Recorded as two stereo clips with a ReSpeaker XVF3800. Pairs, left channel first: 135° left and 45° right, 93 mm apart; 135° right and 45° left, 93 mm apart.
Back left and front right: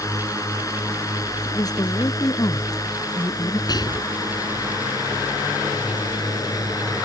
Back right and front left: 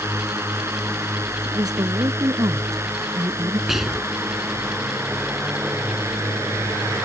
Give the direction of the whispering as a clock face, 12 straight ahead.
8 o'clock.